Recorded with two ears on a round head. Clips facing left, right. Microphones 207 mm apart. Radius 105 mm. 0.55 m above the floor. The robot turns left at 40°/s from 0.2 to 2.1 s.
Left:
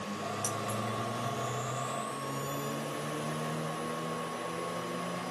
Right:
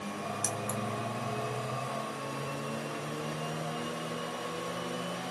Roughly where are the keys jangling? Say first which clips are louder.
Right 2 dB; right.